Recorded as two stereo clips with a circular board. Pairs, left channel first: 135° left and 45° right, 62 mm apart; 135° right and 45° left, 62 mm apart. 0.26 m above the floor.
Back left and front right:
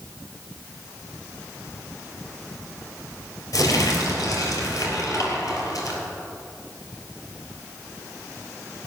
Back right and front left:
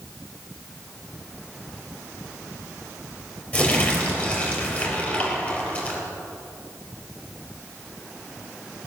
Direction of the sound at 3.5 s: 160° left.